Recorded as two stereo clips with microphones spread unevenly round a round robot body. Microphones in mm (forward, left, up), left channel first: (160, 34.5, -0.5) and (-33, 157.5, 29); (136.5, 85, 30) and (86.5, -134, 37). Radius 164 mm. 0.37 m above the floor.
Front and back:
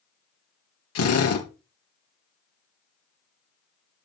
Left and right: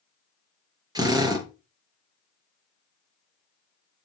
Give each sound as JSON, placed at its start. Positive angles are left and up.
{"t": 0.9, "sound": "a drill", "azimuth_deg": -30, "distance_m": 4.0}